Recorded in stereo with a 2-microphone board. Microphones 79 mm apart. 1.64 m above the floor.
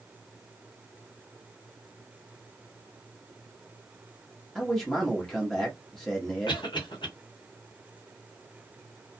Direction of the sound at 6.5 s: 85° left.